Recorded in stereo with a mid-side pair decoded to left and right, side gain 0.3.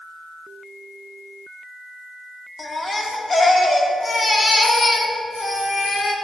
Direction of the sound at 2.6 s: 45° left.